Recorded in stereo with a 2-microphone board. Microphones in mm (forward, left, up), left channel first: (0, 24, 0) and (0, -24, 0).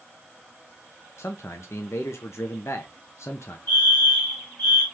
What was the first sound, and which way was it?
A man speaking, 65° left (ahead or behind).